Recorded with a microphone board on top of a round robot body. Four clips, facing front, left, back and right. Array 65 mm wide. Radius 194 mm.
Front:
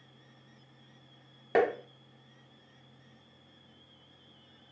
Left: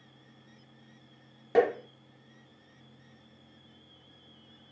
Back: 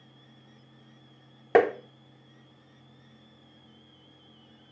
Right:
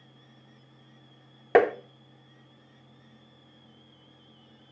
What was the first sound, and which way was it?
Tapping, 115° right.